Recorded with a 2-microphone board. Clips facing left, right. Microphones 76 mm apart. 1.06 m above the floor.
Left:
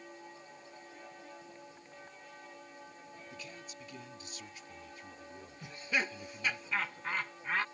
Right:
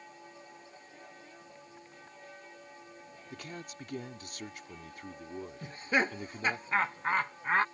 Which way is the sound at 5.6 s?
40° right (ahead or behind).